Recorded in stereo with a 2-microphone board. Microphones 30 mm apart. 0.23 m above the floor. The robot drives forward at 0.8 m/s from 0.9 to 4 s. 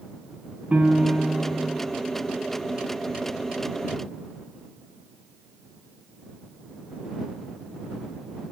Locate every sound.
0.7 s a piano: 50° right (ahead or behind), 1.1 m; by 1.8 s 30° right (ahead or behind), 1.5 m